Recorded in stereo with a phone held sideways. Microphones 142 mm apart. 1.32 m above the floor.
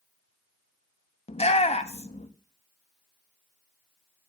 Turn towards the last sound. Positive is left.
turn(degrees=50)  # may be behind; listen again after turning